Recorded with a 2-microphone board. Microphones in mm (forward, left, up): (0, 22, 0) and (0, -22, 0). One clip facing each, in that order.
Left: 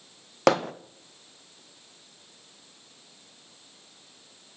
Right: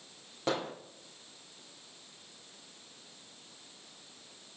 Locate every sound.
0.5 s hammering: 85° left, 0.5 m